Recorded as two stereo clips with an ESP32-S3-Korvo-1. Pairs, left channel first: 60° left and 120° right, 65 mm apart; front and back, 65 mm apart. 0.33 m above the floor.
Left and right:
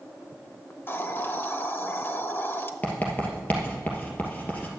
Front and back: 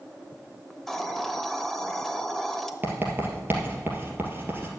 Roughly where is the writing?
Behind left.